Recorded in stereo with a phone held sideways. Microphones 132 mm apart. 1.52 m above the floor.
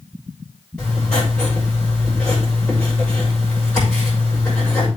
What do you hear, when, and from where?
0.8 s writing: 10° left (ahead or behind), 6.5 m